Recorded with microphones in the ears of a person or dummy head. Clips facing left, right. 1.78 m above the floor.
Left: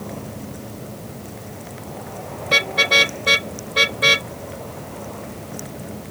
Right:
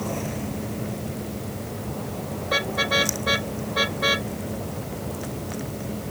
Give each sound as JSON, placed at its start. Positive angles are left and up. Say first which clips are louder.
{"t": 2.5, "sound": "a car horn", "louder": "left 3 dB", "side_deg": 35}